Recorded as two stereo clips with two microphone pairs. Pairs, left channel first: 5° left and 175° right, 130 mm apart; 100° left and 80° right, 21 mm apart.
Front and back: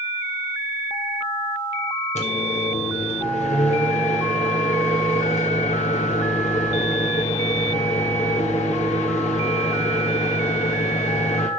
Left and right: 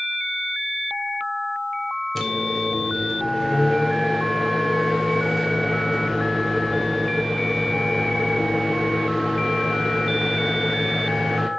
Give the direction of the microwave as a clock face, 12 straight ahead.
11 o'clock.